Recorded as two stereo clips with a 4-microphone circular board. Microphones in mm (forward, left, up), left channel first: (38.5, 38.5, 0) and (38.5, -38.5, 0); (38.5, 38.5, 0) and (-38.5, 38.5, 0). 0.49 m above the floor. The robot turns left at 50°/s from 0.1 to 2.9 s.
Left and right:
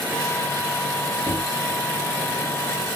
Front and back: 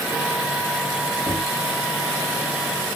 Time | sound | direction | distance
1.2 | knocking | 45° left | 1.6 m